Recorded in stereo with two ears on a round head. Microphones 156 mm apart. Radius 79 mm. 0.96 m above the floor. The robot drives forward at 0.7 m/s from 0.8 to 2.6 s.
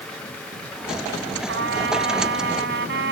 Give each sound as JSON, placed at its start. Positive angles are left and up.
{"t": 1.5, "sound": "a trumpet", "side_deg": -80}